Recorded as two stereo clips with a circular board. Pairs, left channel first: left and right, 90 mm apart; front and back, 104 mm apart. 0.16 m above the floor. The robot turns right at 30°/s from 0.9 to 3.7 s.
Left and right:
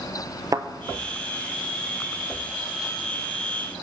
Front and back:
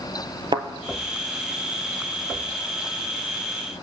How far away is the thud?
About 0.7 m.